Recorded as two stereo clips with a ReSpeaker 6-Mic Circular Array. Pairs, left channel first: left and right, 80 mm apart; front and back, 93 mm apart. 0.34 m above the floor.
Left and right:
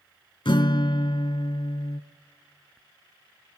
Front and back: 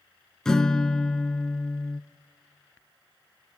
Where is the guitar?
85° left, 1.1 m.